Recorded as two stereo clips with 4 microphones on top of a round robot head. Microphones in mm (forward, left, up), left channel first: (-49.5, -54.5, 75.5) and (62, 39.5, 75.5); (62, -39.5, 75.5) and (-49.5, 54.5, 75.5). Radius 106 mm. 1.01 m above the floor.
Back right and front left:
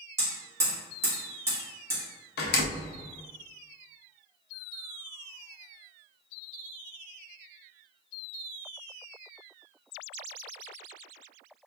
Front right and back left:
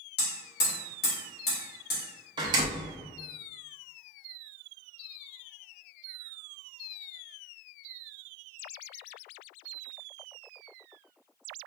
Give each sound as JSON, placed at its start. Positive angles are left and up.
{"t": 0.2, "sound": "hammering", "azimuth_deg": -30, "distance_m": 1.8}
{"t": 2.4, "sound": "a door slam", "azimuth_deg": -155, "distance_m": 0.5}